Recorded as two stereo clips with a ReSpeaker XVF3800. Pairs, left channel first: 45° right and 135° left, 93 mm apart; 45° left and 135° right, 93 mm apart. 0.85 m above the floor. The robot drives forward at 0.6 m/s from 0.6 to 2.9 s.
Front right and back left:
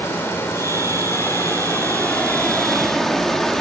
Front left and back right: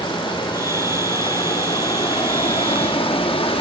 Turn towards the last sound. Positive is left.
turn(degrees=40)